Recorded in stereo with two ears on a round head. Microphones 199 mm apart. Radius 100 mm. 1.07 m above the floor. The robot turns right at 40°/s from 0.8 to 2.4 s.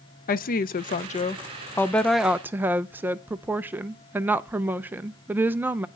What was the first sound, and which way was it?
A woman speaking, 130° left.